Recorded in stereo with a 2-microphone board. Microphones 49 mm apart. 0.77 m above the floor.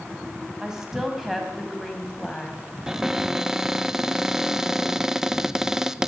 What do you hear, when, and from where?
0.6 s a woman speaking: 15° right (ahead or behind), 5 m; by 2.6 s 25° left (ahead or behind), 4.5 m
2.9 s a cupboard door: 10° right (ahead or behind), 0.8 m